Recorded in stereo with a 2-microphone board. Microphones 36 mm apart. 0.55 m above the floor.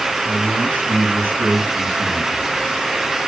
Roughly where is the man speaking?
Right.